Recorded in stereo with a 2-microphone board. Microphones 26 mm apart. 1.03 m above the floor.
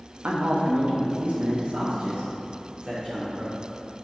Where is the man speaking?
80° right, 1.0 m; by 3.5 s 45° right (ahead or behind), 2.5 m.